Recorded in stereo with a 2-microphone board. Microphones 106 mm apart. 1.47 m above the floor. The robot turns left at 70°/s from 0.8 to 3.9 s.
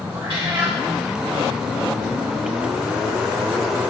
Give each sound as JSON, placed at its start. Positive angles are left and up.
{"t": 0.1, "sound": "a cat meowing", "side_deg": -55, "distance_m": 4.0}